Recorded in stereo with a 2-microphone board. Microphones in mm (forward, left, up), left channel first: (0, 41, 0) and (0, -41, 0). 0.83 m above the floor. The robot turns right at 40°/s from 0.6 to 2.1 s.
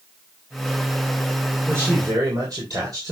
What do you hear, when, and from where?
1.7 s a man speaking: 35° right (ahead or behind), 3 m; by 3.1 s 50° right (ahead or behind), 3 m